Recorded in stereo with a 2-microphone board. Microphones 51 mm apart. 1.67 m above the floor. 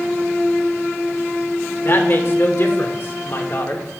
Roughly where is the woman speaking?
Left.